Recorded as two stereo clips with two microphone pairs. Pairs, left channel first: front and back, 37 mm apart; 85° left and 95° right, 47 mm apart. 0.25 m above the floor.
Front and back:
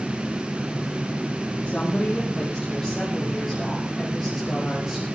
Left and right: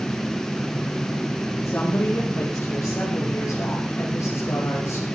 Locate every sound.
1.6 s a woman speaking: 65° left, 7.5 m; by 5.0 s 105° left, 8.5 m